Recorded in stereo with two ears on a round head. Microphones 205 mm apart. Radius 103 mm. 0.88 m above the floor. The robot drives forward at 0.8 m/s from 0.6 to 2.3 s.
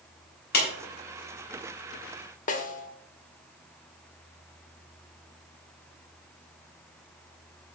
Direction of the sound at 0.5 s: 45° left (ahead or behind).